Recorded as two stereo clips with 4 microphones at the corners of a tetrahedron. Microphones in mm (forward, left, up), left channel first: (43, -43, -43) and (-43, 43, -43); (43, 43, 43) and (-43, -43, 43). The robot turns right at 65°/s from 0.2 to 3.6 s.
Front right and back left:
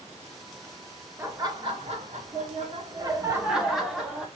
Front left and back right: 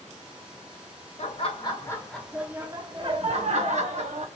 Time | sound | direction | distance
1.2 | laughter | 65° left | 1.1 m